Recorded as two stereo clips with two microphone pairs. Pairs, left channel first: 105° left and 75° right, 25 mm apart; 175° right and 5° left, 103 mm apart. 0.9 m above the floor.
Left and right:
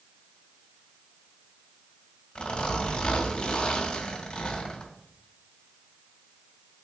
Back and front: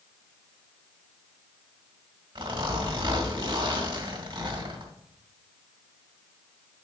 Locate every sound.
2.4 s a zipper: 45° left, 2 m